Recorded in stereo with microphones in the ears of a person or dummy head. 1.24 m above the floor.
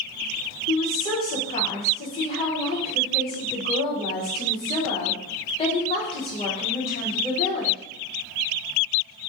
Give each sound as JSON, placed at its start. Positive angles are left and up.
{"t": 0.7, "sound": "a woman speaking", "side_deg": 30, "distance_m": 0.7}